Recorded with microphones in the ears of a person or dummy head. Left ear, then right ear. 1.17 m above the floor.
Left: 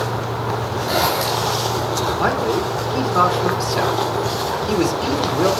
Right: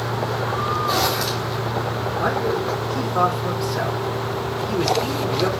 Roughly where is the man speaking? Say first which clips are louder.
Even; left.